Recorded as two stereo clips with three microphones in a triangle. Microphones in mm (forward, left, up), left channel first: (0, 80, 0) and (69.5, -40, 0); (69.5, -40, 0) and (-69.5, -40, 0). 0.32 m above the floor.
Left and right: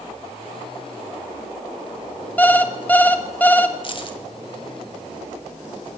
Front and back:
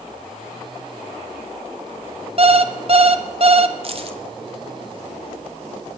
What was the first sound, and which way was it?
An alarm clock, 170° right.